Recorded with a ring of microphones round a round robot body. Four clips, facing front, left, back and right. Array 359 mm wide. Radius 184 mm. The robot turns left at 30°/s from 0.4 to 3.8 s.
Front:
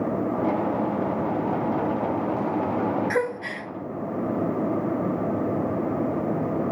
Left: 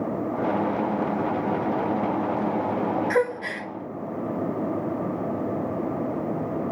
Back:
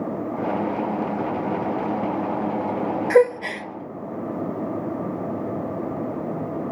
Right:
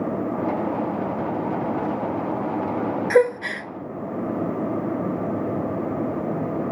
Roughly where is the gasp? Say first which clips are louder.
Right 6 dB, back 9 dB; behind right.